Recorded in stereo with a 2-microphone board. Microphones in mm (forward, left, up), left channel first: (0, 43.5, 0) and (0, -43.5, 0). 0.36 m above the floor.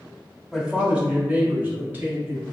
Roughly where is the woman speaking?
Centre.